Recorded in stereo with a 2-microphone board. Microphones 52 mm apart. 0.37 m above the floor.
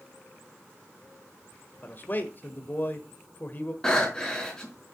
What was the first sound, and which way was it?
A man speaking, 35° left (ahead or behind).